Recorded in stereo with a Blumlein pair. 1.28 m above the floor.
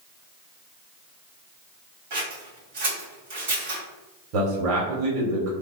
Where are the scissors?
55° right, 1.9 m.